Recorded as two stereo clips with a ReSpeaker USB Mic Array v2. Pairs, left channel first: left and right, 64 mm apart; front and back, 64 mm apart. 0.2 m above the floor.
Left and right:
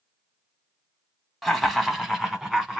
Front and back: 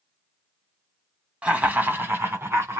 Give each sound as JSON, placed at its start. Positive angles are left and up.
{"t": 1.4, "sound": "laughter", "azimuth_deg": 170, "distance_m": 1.0}